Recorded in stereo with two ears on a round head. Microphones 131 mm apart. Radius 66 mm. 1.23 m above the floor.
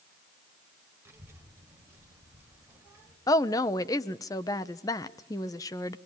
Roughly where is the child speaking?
Centre.